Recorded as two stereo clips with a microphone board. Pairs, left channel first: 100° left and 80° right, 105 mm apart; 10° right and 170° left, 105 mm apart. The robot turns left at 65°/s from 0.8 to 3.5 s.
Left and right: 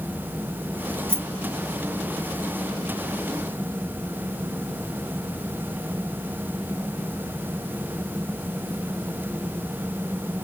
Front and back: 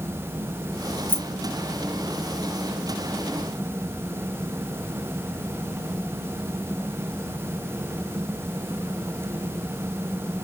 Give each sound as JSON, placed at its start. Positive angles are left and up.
{"t": 1.1, "sound": "keys jangling", "azimuth_deg": 25, "distance_m": 1.0}